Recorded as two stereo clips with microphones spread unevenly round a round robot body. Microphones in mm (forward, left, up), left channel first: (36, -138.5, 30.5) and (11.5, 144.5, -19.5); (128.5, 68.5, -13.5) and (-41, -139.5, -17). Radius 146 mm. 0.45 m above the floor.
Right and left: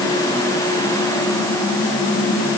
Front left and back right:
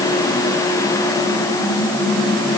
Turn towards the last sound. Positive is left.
No sound to turn to.